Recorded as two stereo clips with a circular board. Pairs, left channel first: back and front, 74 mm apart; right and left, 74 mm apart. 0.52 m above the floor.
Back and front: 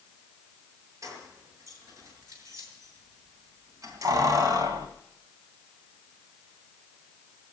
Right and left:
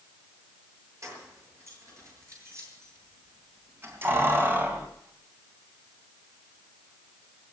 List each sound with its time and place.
1.0 s keys jangling: 45° left, 8 m; by 4.9 s 25° left, 2 m